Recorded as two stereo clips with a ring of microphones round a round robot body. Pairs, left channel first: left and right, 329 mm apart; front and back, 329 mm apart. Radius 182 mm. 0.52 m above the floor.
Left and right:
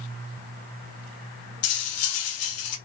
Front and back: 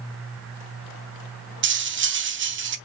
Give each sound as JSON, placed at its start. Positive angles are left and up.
{"t": 1.6, "sound": "cutlery clinking", "azimuth_deg": 130, "distance_m": 0.6}